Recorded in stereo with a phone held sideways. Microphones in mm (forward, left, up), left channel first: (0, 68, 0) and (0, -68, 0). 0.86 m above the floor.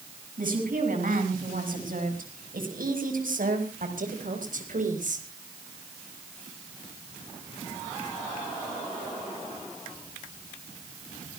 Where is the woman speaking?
80° right, 7 m; by 5.3 s 65° right (ahead or behind), 4 m.